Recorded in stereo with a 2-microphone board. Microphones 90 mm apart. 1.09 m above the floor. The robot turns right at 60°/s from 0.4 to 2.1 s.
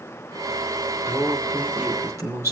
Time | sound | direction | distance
1.1 | a man speaking | 150° left | 3 m